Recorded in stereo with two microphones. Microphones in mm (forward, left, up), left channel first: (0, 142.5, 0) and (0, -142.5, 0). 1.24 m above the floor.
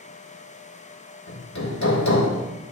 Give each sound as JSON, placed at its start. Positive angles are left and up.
{"t": 1.3, "sound": "hammering", "side_deg": 75, "distance_m": 1.8}